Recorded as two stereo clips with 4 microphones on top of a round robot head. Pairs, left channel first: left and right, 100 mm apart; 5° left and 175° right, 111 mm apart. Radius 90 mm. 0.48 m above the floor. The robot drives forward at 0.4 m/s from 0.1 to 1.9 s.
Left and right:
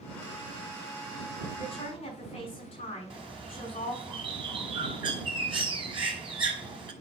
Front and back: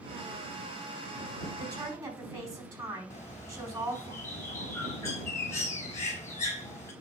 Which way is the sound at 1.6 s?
125° left.